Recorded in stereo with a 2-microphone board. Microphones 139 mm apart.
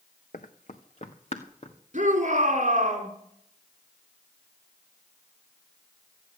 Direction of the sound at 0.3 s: 65° left (ahead or behind).